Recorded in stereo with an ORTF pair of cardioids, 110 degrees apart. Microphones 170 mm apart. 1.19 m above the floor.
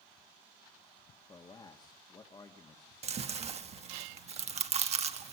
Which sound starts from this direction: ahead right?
Chewing, at 3.0 s.